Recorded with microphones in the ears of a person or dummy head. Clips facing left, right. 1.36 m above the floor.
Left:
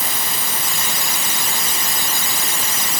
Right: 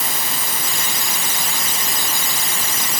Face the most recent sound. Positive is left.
No sound to turn to.